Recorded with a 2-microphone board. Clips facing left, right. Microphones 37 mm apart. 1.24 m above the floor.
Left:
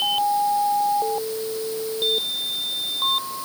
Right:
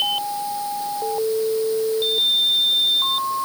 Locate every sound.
Only background noise.